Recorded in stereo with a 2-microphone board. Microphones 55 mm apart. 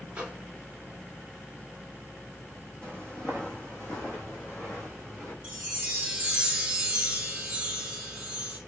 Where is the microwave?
15° right (ahead or behind), 1.5 m.